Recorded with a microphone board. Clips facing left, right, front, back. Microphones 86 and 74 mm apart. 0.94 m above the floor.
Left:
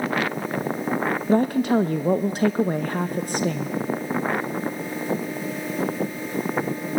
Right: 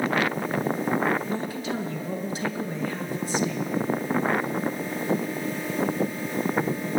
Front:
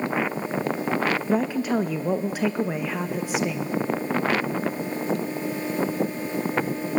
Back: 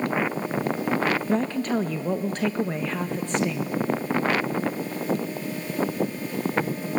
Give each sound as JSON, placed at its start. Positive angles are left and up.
{"t": 1.3, "sound": "a woman speaking", "azimuth_deg": 80, "distance_m": 0.5}